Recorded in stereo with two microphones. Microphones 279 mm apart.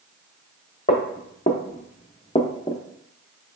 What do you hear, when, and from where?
0.9 s footsteps: 35° left (ahead or behind), 1.0 m; by 2.8 s 10° left (ahead or behind), 0.7 m